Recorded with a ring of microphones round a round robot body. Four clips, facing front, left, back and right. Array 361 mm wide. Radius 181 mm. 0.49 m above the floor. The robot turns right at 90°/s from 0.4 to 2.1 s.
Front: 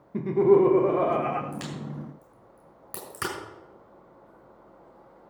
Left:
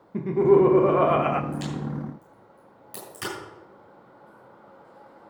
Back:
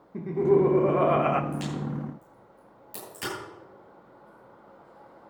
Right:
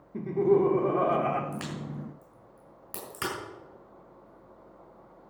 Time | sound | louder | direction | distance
0.1 | laughter | left 6 dB, front 3 dB | 50° left | 0.7 m
1.5 | a crack | left 6 dB, back 4 dB | 80° right | 7 m